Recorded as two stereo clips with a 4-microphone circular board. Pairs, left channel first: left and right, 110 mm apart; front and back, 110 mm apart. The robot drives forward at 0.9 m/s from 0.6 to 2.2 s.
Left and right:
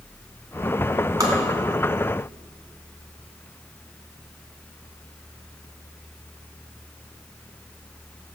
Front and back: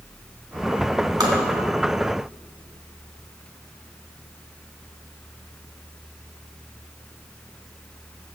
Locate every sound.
1.2 s tapping: 140° right, 1.9 m